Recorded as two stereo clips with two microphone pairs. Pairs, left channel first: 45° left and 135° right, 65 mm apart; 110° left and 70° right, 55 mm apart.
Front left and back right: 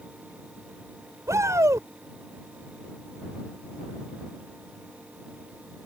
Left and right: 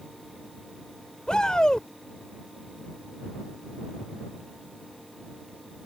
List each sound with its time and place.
1.3 s a shout: 175° right